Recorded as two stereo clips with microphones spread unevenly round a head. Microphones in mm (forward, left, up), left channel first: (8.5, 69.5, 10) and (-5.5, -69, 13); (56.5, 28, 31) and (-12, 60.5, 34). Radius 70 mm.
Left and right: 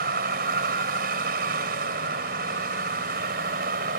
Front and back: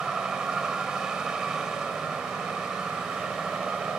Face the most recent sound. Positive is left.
turn(degrees=-120)